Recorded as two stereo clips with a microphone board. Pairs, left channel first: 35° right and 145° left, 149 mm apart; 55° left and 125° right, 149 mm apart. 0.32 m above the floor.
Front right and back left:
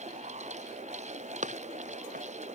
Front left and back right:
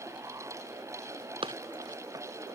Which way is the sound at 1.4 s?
Straight behind.